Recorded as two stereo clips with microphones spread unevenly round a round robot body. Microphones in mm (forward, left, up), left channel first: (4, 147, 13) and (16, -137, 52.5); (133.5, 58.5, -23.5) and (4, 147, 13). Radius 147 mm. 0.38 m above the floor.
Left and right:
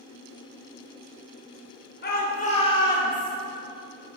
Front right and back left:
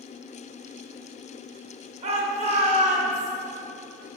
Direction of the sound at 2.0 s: 105° left.